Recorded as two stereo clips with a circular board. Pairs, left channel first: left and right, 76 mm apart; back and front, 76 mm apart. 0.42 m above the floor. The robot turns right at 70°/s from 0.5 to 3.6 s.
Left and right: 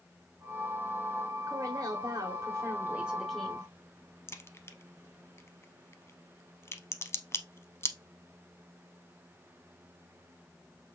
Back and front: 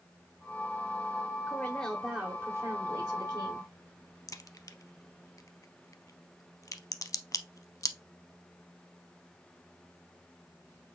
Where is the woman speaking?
125° right, 1.3 m; by 3.7 s 25° left, 1.3 m.